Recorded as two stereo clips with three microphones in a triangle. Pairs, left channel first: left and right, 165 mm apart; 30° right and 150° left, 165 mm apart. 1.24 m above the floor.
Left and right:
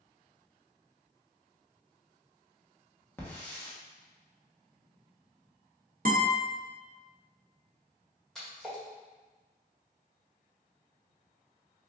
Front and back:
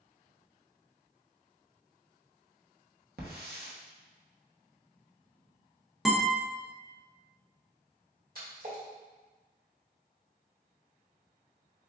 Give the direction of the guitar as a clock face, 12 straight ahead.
4 o'clock.